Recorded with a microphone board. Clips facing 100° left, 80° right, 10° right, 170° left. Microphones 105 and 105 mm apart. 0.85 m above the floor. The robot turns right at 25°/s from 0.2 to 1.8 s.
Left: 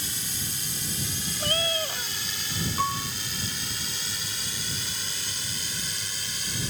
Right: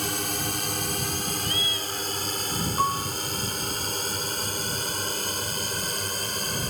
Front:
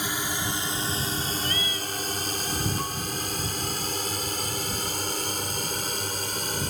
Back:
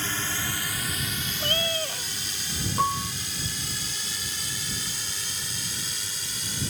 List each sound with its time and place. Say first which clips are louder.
0.0 s a drone: right 9 dB, front 2 dB; 85° right; by 6.7 s 45° right
1.4 s a cat meowing: left 3 dB, back 3 dB; 130° left; by 2.1 s 140° left
2.8 s a piano: right 3 dB, back 6 dB; 155° right